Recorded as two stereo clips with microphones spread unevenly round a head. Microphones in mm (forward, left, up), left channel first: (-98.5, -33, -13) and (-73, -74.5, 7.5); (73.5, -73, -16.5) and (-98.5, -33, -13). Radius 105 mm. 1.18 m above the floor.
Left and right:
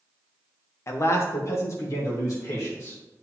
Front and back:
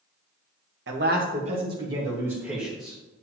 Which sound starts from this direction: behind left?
A man speaking, at 0.9 s.